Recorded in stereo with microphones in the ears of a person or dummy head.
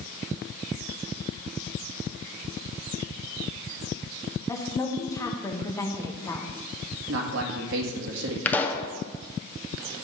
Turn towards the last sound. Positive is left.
turn(degrees=10)  # may be behind; listen again after turning